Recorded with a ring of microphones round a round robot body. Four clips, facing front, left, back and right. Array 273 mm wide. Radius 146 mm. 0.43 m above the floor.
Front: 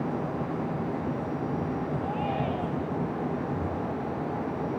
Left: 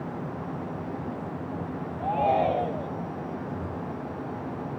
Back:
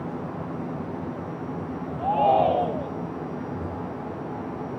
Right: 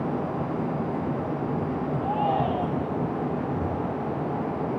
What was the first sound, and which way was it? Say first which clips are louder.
A shout: left 3 dB, back 10 dB; 150° left.